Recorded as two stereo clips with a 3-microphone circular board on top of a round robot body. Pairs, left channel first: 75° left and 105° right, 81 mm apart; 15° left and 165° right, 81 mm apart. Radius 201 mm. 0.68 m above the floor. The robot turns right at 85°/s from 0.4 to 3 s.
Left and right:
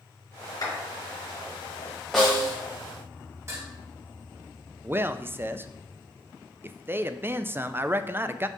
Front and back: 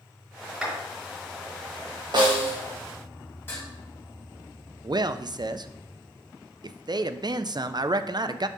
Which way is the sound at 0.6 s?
115° left.